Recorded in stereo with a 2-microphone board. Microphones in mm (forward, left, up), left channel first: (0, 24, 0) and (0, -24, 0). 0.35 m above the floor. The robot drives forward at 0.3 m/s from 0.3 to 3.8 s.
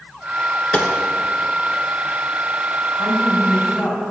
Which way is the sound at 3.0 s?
15° left (ahead or behind).